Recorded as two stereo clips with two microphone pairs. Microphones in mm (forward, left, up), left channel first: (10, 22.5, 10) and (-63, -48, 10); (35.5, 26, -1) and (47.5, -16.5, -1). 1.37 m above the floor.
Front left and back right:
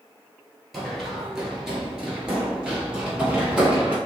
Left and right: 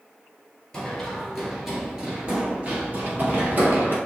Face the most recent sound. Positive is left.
turn(degrees=-65)